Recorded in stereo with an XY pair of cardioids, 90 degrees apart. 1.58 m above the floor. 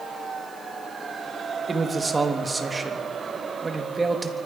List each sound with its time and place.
1.7 s a man speaking: 30° right, 3.5 m